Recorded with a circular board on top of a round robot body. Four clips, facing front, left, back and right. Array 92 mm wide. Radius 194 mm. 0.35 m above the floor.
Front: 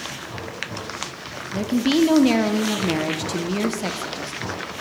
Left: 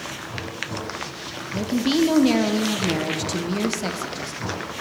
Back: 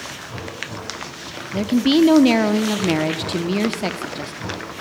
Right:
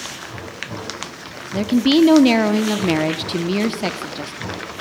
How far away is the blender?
I don't hear a blender.